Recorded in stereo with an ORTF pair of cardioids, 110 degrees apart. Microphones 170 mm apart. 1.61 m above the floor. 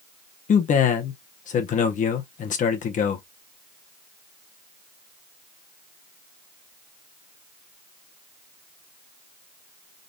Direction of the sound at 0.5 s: 50° left.